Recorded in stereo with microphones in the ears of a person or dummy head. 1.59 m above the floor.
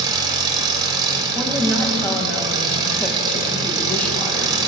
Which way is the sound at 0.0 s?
25° right (ahead or behind).